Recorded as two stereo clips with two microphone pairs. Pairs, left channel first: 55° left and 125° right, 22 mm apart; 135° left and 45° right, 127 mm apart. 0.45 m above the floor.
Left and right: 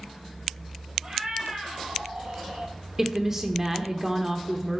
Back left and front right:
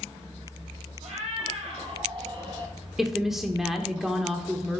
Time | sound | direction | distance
1.0 | a cat meowing | 65° right | 1.8 m
3.0 | a woman speaking | 115° right | 0.8 m